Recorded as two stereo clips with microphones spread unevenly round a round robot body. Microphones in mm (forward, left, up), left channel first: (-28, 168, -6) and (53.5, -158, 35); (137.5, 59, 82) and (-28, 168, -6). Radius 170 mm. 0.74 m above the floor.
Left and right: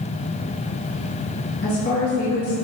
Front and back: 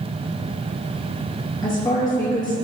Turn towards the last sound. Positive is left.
turn(degrees=55)